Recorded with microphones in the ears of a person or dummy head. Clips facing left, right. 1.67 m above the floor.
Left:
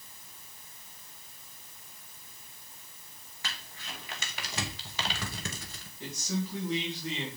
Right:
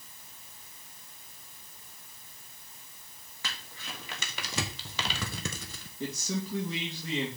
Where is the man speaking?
80° right, 3 m.